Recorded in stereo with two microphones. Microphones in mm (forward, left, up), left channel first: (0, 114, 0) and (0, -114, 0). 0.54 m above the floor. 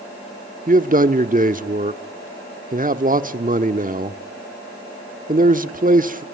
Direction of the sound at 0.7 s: 35° right (ahead or behind).